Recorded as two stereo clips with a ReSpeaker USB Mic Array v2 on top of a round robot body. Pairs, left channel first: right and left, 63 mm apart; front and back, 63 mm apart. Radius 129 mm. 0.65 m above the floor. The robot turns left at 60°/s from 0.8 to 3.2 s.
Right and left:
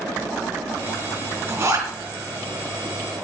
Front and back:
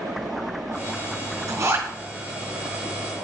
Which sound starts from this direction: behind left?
A zipper, at 1.5 s.